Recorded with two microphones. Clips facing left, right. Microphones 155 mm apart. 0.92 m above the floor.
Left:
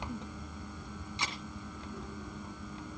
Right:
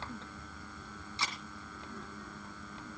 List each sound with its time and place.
1.2 s a camera shutter: 15° left (ahead or behind), 3 m